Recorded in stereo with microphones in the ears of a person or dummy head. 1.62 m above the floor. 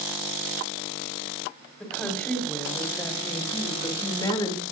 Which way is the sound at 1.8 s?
5° left (ahead or behind).